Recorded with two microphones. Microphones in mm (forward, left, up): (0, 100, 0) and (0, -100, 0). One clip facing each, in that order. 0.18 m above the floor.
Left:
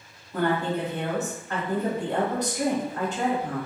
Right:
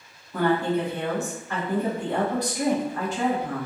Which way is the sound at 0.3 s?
20° left (ahead or behind).